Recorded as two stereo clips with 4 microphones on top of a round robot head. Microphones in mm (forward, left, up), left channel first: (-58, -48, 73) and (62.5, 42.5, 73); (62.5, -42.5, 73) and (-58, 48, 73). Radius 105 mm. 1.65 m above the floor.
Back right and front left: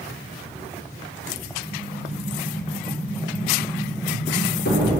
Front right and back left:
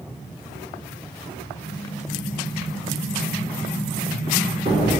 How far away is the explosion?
About 4.5 m.